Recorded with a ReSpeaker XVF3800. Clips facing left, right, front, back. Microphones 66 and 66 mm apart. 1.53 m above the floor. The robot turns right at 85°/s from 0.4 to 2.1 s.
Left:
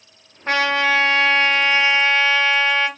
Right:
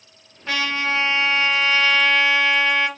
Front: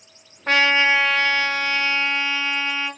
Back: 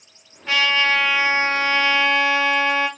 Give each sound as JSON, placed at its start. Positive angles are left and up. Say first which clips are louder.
{"t": 0.5, "sound": "a trumpet", "louder": "left 5 dB, front 2 dB", "azimuth_deg": 40, "distance_m": 1.2}